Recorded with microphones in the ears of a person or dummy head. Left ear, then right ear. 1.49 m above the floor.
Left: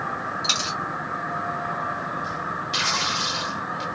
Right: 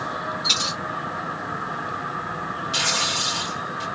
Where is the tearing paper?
35° left (ahead or behind), 1.2 m.